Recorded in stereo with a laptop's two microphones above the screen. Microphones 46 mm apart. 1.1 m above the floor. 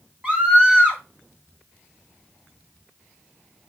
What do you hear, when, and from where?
0.2 s a scream: 25° right (ahead or behind), 2 m